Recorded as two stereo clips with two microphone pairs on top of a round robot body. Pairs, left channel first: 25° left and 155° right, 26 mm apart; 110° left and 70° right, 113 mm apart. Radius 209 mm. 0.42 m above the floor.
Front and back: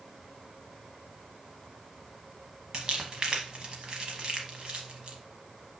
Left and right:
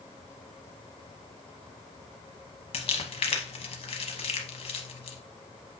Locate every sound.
2.7 s crumpling: 140° left, 0.7 m